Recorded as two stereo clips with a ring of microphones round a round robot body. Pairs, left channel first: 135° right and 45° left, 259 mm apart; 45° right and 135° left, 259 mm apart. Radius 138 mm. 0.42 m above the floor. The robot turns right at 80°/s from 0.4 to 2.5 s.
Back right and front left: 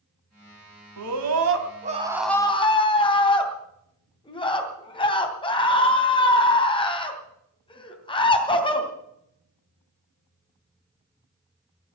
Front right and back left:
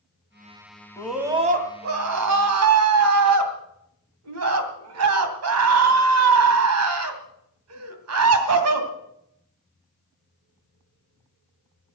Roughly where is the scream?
Ahead left.